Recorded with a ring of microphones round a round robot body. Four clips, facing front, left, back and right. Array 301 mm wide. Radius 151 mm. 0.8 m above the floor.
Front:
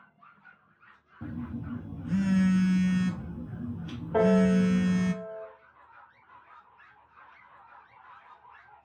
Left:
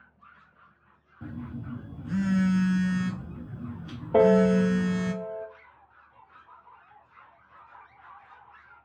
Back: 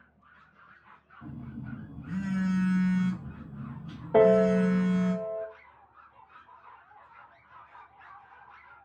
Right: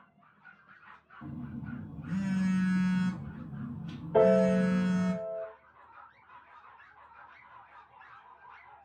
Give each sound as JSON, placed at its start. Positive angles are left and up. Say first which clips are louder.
{"t": 1.2, "sound": "a phone buzzing", "louder": "left 3 dB, front 5 dB", "azimuth_deg": 25, "distance_m": 0.5}
{"t": 4.1, "sound": "a piano", "louder": "left 4 dB, back 3 dB", "azimuth_deg": 120, "distance_m": 0.6}